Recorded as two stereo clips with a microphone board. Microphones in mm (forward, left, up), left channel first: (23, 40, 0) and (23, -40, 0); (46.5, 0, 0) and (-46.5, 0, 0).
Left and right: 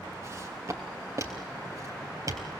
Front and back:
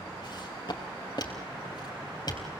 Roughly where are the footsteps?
Ahead right.